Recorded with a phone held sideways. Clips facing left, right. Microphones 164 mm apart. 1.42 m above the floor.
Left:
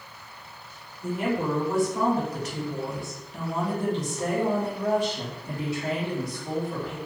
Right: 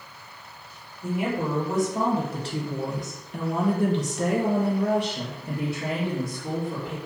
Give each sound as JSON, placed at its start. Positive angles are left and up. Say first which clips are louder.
{"t": 1.0, "sound": "a woman speaking", "louder": "even", "side_deg": -10, "distance_m": 1.7}